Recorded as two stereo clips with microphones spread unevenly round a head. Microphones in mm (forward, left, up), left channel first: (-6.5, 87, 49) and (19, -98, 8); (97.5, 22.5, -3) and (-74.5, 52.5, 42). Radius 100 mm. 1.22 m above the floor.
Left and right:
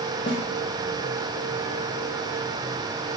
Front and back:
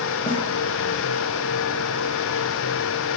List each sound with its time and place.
0.3 s a snare drum: 30° left, 0.8 m